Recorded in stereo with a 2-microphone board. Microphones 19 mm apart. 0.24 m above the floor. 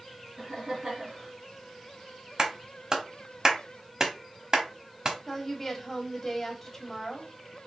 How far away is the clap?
About 1.1 m.